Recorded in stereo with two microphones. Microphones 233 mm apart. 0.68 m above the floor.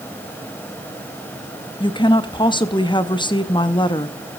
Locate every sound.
1.8 s a woman speaking: 20° left (ahead or behind), 0.7 m